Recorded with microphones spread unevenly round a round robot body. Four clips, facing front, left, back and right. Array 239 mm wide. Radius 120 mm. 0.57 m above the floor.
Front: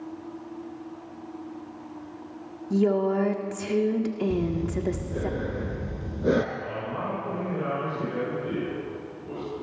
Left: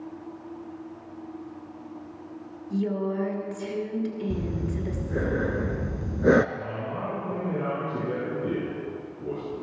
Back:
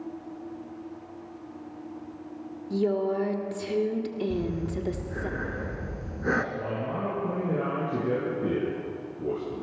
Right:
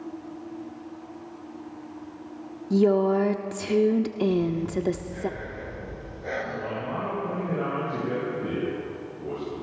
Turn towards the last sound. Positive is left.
turn(degrees=-165)